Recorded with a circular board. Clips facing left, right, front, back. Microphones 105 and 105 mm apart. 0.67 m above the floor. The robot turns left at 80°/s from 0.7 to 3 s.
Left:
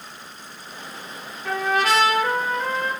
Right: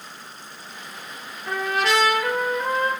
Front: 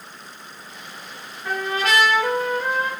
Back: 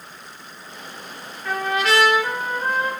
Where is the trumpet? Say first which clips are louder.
Left 2 dB, back 2 dB; 80° left, 4 m; by 2.9 s 35° right, 4 m.